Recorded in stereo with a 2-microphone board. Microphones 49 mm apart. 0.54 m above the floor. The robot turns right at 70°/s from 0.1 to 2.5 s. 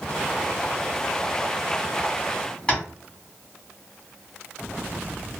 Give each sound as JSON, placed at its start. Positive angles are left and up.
{"t": 2.7, "sound": "tapping", "side_deg": 20, "distance_m": 1.5}